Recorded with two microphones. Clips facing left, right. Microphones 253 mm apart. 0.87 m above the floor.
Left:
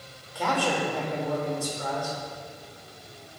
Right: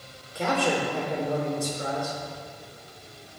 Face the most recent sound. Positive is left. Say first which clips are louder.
# right 2 dB
turn(degrees=-25)  # may be behind; listen again after turning